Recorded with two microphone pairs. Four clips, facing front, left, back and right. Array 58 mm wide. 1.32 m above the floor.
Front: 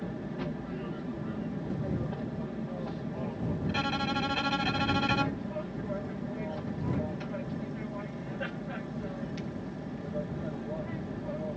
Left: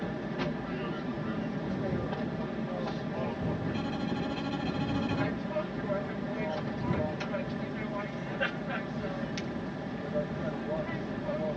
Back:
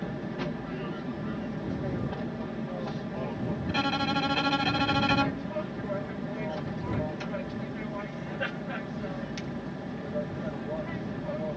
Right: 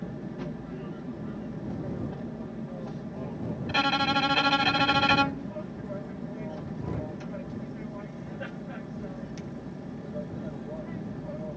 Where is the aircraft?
120° left.